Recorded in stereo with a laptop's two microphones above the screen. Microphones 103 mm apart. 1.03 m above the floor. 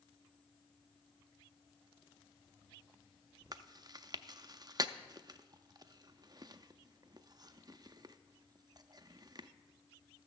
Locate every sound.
3.5 s chewing: 40° right (ahead or behind), 0.5 m